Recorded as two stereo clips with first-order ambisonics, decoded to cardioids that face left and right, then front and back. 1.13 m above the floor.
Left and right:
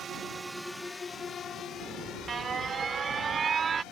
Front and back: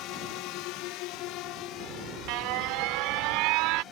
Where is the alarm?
160° right.